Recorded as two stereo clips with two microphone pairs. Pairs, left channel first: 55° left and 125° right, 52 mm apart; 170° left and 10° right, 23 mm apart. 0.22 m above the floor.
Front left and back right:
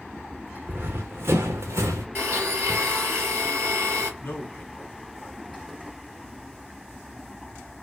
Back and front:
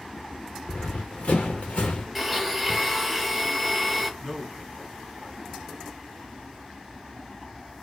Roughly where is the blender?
Right.